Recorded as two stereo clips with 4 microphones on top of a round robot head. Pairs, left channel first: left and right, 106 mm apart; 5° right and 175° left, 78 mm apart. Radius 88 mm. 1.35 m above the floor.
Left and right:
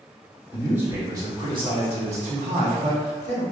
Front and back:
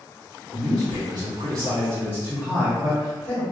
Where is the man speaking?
165° right, 1.0 m; by 3.4 s 80° right, 1.4 m.